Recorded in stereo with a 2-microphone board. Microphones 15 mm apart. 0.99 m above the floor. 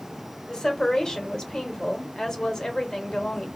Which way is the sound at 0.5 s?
55° left (ahead or behind).